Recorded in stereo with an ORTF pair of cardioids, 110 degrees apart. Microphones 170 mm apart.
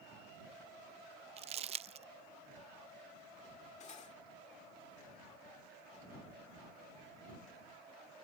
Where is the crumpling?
35° right.